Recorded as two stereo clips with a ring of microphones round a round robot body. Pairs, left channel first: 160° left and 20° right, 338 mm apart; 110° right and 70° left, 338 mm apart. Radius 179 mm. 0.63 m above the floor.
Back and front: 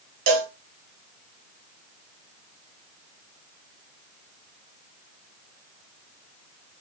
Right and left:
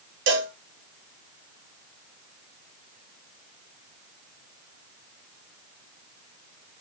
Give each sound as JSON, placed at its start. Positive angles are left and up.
{"t": 0.3, "sound": "a cowbell", "azimuth_deg": 10, "distance_m": 1.1}